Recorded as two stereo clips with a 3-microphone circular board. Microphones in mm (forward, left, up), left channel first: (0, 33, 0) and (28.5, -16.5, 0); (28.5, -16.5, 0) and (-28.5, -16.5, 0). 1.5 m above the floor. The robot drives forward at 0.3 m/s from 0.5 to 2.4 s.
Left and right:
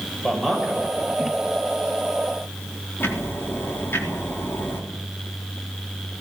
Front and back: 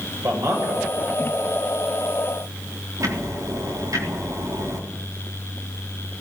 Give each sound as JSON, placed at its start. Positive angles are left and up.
{"t": 0.2, "sound": "a man speaking", "azimuth_deg": -150, "distance_m": 7.0}
{"t": 3.0, "sound": "ticking", "azimuth_deg": 165, "distance_m": 4.0}